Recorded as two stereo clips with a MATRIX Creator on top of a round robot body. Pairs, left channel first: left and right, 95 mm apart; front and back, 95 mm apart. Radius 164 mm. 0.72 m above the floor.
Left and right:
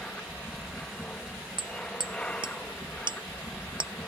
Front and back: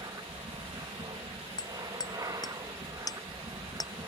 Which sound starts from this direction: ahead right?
Hammering, at 1.6 s.